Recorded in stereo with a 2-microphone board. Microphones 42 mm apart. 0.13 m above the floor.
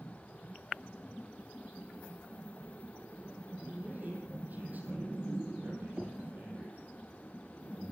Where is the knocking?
20° right (ahead or behind), 2.5 m.